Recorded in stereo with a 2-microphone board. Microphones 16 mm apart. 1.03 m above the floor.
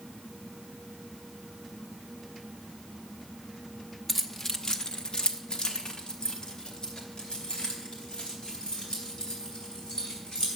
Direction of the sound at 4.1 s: 15° left (ahead or behind).